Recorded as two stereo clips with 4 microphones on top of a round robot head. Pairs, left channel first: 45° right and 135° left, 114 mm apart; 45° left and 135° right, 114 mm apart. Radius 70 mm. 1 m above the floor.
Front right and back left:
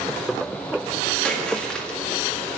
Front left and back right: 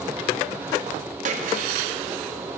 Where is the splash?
130° right, 1.8 m.